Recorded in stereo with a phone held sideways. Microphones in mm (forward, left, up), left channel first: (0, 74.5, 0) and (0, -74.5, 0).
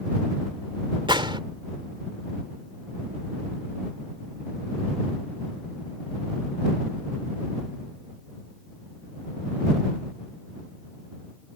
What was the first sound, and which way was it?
A gunshot, 35° right (ahead or behind).